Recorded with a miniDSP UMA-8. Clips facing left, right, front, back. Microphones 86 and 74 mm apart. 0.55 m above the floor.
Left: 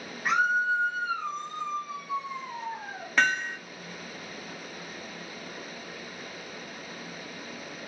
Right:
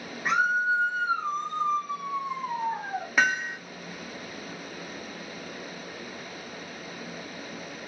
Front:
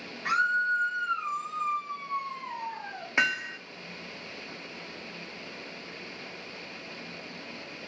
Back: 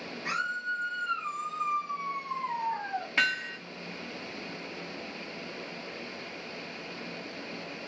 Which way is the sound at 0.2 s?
Straight ahead.